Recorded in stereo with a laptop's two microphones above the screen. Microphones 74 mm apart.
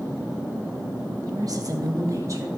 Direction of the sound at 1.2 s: 55° right (ahead or behind).